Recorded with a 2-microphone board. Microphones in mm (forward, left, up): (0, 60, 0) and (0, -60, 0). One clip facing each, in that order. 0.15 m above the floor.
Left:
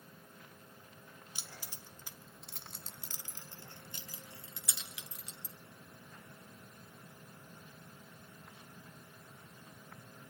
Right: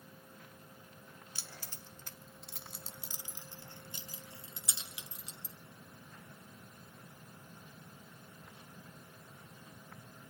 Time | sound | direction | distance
1.4 | keys jangling | 15° left (ahead or behind) | 1.0 m